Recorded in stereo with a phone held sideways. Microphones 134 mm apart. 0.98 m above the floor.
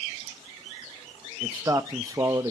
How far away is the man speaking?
About 0.9 m.